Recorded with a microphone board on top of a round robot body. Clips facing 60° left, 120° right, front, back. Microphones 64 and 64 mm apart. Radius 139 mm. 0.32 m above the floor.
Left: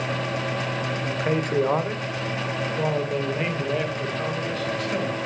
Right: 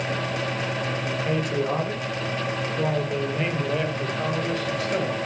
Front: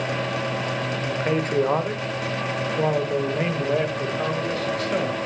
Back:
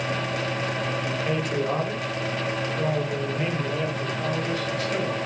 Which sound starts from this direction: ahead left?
A man speaking, at 1.0 s.